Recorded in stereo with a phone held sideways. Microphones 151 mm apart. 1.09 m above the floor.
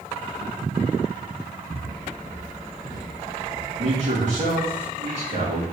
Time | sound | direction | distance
1.7 | footsteps | 5° left (ahead or behind) | 1.3 m
3.8 | a man speaking | 45° right (ahead or behind) | 2.5 m